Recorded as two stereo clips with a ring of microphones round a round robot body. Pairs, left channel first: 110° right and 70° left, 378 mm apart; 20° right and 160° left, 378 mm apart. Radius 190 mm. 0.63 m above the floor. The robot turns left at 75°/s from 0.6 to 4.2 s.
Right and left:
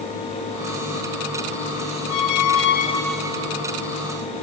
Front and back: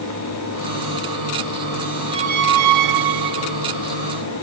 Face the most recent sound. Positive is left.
turn(degrees=80)